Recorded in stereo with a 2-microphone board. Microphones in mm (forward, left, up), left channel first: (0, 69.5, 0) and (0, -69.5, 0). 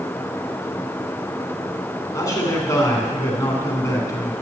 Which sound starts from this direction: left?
A man speaking, at 2.1 s.